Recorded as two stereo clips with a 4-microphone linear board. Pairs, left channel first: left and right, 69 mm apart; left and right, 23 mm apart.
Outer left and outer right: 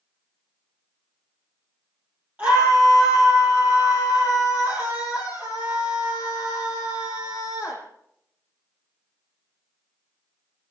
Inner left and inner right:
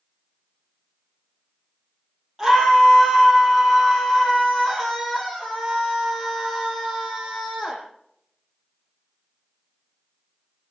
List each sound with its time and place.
2.4 s a scream: 25° right (ahead or behind), 8.5 m